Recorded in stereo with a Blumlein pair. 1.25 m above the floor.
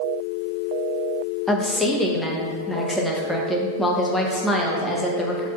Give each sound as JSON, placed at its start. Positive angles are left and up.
{"t": 1.5, "sound": "a woman speaking", "azimuth_deg": 5, "distance_m": 0.7}